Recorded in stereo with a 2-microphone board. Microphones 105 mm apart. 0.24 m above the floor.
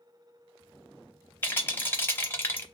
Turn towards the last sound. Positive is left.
turn(degrees=20)  # may be behind; listen again after turning